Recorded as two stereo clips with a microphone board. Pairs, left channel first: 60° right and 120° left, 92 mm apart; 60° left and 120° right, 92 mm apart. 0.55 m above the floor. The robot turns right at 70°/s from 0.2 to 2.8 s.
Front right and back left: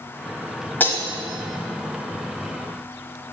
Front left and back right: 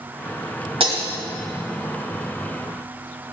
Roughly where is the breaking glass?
Behind right.